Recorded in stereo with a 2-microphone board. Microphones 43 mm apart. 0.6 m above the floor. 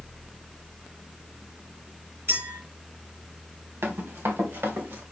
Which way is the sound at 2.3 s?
75° right (ahead or behind).